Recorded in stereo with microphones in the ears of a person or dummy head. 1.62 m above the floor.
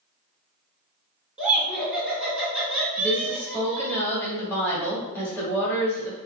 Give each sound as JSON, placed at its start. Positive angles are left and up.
{"t": 1.4, "sound": "laughter", "side_deg": 0, "distance_m": 1.5}
{"t": 3.0, "sound": "a woman speaking", "side_deg": 15, "distance_m": 1.6}